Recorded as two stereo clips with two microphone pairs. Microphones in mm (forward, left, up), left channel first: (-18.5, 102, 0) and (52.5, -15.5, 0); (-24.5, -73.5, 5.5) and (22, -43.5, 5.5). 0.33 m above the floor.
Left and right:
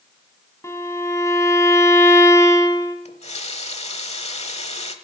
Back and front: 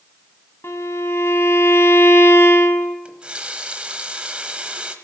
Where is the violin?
175° right, 1.4 m.